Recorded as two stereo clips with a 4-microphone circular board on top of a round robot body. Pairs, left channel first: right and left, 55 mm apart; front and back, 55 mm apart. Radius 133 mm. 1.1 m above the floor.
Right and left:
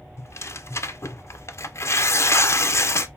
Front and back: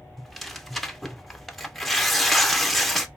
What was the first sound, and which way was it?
Tearing paper, 85° right.